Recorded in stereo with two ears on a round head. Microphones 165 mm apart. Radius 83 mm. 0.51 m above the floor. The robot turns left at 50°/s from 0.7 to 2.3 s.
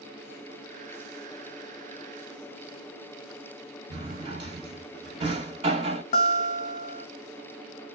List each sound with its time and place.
3.9 s a drawer: 35° right (ahead or behind), 1.6 m
6.1 s a guitar: 45° left (ahead or behind), 0.7 m